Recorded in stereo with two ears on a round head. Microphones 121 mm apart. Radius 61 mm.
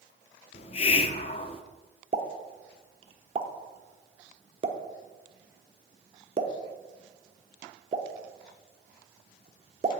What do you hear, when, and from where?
0.5 s a hiss: 45° left (ahead or behind), 0.7 m
2.1 s a pop: 40° right (ahead or behind), 1.1 m